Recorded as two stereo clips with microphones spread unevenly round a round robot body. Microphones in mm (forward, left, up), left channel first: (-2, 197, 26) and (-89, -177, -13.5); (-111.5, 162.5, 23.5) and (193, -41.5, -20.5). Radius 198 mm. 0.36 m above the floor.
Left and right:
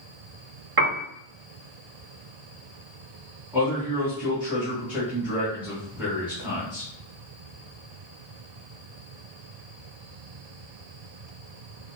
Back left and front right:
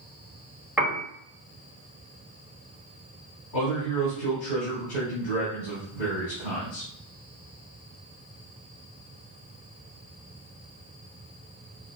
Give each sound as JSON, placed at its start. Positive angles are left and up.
{"t": 0.8, "sound": "a piano", "azimuth_deg": -110, "distance_m": 0.7}
{"t": 3.5, "sound": "a man speaking", "azimuth_deg": 175, "distance_m": 1.8}